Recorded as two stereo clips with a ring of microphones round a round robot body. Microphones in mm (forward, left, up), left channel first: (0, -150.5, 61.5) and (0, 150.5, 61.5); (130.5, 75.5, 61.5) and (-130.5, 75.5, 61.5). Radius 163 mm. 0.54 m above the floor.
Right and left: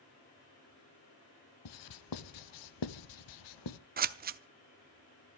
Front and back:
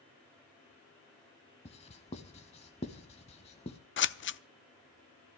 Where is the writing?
70° right, 0.7 m.